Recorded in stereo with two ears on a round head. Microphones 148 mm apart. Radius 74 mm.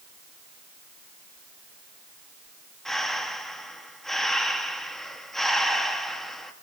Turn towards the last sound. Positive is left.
turn(degrees=0)  # may be behind; listen again after turning